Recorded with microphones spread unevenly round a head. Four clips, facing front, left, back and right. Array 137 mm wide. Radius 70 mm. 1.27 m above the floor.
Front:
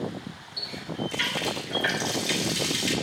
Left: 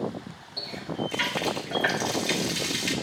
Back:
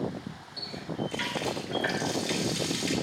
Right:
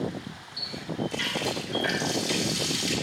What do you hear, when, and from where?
0.6 s a running tap: 85° left, 1.9 m